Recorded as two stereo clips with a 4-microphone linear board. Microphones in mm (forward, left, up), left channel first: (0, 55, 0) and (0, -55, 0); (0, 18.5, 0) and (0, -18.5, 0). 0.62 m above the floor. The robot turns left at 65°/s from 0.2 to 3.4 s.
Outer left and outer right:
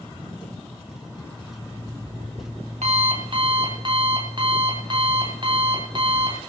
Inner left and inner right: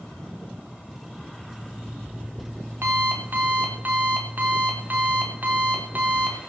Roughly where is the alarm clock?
Ahead.